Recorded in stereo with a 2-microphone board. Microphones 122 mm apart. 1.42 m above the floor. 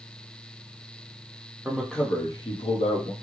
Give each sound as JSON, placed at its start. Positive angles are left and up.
{"t": 1.6, "sound": "a man speaking", "side_deg": -10, "distance_m": 0.9}